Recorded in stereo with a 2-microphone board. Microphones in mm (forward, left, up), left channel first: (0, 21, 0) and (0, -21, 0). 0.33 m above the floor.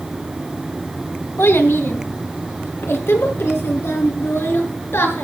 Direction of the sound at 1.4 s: 70° left (ahead or behind).